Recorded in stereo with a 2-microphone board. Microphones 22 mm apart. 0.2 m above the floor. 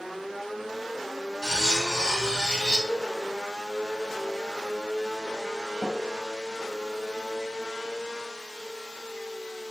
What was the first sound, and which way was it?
Cutlery clinking, 30° right (ahead or behind).